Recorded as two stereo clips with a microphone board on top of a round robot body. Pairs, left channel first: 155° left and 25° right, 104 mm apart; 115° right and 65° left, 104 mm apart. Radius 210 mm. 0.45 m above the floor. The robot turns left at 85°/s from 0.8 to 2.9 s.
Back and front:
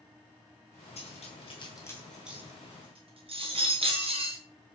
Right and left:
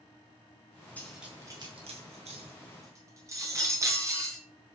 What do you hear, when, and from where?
1.0 s cutlery clinking: 170° left, 3.5 m; by 4.4 s 5° left, 3.5 m